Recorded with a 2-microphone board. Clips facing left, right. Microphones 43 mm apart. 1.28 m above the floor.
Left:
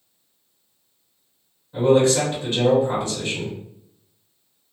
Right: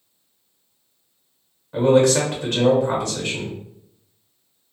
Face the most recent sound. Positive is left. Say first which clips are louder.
# right 1 dB
turn(degrees=-80)